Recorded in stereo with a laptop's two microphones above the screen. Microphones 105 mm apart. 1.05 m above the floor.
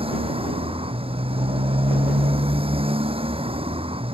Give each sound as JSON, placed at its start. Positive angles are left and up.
{"t": 0.0, "sound": "a motorcycle", "side_deg": -60}